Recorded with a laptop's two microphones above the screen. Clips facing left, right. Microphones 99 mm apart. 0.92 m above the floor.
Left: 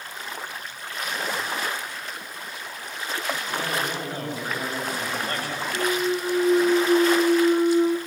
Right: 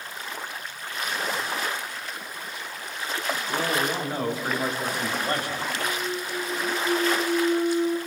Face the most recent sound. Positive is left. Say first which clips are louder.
# left 5 dB
turn(degrees=85)